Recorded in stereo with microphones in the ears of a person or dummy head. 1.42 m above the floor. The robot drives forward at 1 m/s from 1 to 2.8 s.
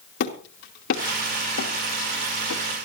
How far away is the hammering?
About 3 m.